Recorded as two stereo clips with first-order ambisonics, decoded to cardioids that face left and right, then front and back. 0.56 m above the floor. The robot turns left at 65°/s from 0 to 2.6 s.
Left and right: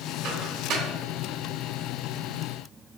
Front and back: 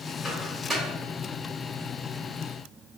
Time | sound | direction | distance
0.2 | a microwave | 65° right | 1.6 m